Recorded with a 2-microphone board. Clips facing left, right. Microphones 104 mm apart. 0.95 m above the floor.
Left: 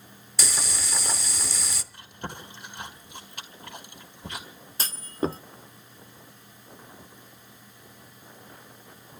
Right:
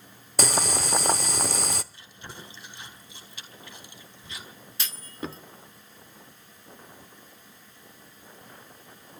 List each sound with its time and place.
0.4 s boiling: 55° right (ahead or behind), 0.8 m
1.9 s chewing: 60° left (ahead or behind), 4 m
4.8 s a clunk: 40° left (ahead or behind), 0.6 m